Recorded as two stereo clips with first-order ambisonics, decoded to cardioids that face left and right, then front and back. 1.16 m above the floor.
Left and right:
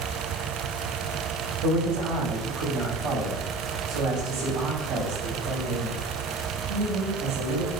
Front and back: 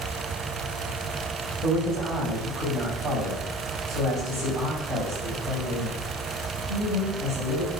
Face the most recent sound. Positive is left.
turn(degrees=-90)